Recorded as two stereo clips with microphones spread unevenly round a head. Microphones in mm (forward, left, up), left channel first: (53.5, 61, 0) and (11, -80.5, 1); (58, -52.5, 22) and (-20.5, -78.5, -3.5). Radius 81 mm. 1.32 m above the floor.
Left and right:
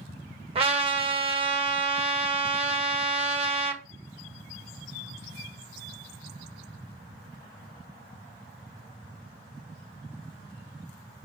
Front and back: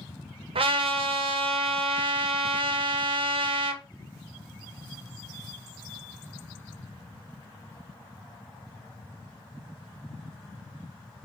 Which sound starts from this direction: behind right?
A trumpet, at 0.6 s.